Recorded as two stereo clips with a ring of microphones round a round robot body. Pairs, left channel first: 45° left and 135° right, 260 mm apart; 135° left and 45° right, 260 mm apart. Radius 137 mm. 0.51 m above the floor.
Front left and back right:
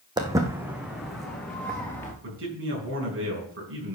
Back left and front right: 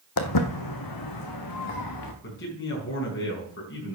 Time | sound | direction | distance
0.2 | footsteps | 150° left | 1.2 m
2.2 | a man speaking | straight behind | 4.5 m